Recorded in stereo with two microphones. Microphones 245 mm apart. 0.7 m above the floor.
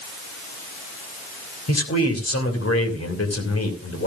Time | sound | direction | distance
1.7 | a man speaking | 75° left (ahead or behind) | 3 m